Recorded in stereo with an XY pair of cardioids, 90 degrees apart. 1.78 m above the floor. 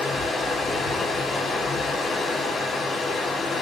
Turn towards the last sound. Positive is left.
turn(degrees=55)